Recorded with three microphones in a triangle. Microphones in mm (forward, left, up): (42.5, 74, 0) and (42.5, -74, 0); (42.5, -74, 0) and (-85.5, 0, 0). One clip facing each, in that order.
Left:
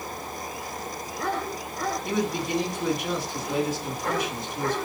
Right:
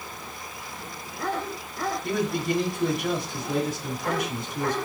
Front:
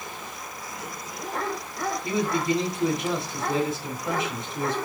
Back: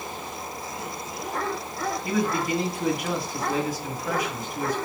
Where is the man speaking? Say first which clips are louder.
Right 2 dB, front 1 dB; 90° right, 2.0 m.